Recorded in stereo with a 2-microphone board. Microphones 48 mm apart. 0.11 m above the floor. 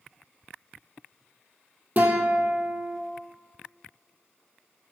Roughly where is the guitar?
Right.